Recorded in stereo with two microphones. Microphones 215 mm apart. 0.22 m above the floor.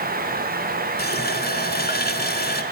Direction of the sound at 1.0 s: 45° left (ahead or behind).